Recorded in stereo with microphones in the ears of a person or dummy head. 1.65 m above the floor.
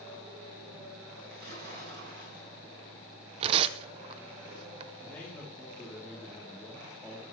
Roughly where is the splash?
Right.